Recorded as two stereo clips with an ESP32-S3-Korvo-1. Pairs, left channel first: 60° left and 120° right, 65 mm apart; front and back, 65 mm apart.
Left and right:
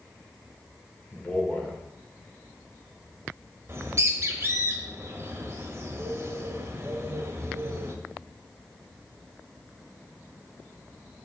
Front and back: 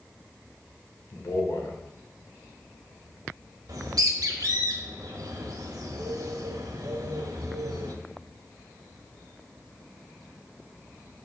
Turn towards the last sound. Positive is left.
turn(degrees=-165)